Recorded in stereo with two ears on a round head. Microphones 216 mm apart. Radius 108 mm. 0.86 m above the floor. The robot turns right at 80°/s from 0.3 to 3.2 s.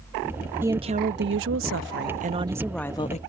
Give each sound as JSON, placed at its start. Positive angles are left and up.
{"t": 0.6, "sound": "a woman speaking", "azimuth_deg": -170}